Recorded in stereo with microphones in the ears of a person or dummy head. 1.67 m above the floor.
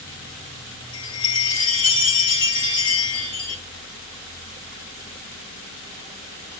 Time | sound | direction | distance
0.9 | a chime | 80° left | 3 m